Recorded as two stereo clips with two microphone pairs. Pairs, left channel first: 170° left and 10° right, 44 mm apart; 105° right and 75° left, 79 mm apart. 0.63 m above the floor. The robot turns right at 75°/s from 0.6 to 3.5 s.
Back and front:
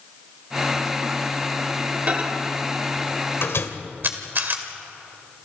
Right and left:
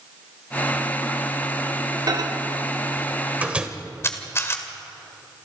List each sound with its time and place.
2.1 s a microwave: 45° left, 1.8 m; by 3.7 s 150° left, 1.8 m
4.0 s a camera shutter: 50° right, 2 m